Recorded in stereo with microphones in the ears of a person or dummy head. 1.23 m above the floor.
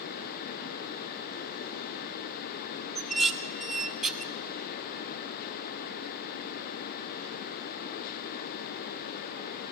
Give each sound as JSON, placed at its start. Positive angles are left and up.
{"t": 3.0, "sound": "dishes clattering", "side_deg": 0, "distance_m": 0.5}